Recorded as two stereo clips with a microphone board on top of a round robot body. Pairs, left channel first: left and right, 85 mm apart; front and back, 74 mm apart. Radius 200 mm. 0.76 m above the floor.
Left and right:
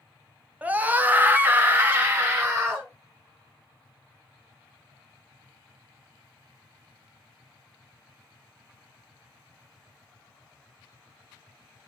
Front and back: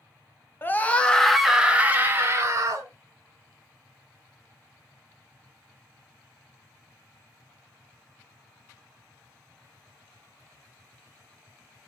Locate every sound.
0.6 s a scream: 35° right, 1.0 m; by 2.9 s 160° right, 1.3 m